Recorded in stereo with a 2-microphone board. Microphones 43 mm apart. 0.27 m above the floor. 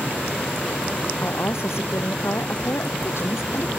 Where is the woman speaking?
70° left (ahead or behind).